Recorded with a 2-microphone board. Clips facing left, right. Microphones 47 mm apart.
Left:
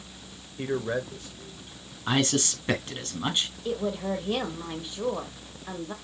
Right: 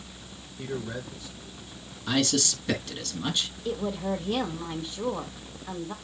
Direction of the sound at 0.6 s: 50° left (ahead or behind).